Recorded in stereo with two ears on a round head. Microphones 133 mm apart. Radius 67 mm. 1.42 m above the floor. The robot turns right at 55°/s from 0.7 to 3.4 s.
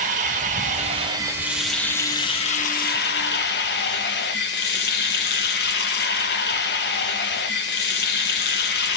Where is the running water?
55° right, 1.1 m; by 9.0 s 95° left, 1.1 m.